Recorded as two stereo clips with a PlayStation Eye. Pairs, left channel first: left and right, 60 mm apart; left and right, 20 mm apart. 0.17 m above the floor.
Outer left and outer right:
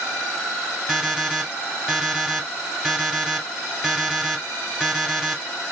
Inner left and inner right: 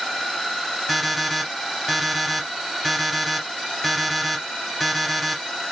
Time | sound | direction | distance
0.9 | an alarm clock | centre (ahead or behind) | 2 m